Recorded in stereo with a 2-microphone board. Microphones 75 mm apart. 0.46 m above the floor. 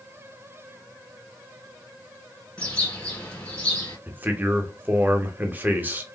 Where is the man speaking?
25° right (ahead or behind), 0.9 m.